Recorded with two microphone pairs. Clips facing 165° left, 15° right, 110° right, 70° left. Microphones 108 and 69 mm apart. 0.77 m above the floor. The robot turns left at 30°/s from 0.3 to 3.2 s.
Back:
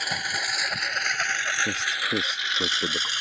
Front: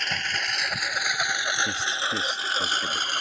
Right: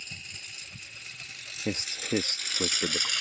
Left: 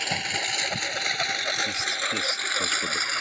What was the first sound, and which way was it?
A lawn mower, 80° left.